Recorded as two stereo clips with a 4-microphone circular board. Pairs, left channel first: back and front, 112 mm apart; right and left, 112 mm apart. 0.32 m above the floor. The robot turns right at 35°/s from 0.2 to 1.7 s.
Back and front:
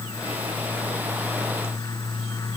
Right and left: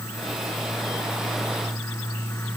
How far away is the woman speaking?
No woman speaking in this recording.